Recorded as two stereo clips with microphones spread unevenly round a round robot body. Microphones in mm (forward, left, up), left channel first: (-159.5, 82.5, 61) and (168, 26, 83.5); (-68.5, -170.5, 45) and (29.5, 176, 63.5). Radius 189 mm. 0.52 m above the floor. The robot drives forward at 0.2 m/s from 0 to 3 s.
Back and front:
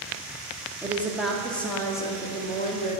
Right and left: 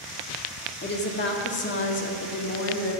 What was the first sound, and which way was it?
A woman speaking, 90° right.